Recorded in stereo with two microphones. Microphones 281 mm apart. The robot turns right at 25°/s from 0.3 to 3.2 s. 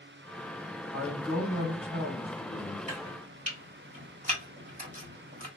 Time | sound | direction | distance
0.9 | a man speaking | 15° right | 1.8 m
2.9 | chopping | 25° right (ahead or behind) | 1.3 m